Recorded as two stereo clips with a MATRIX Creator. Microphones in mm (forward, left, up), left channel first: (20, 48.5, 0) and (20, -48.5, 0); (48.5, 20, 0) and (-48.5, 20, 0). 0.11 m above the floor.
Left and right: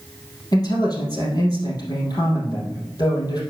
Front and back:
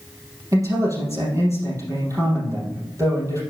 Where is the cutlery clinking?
No cutlery clinking in this recording.